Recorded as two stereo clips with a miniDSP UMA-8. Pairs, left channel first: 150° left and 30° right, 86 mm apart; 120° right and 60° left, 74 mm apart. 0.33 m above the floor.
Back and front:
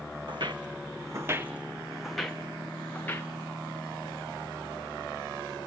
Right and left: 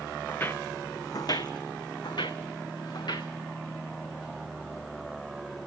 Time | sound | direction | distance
0.3 | footsteps | 55° right | 1.3 m